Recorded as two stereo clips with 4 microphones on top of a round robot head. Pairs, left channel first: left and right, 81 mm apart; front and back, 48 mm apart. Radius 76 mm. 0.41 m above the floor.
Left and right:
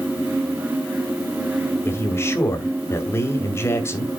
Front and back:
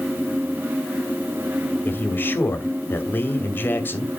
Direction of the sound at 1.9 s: 35° left.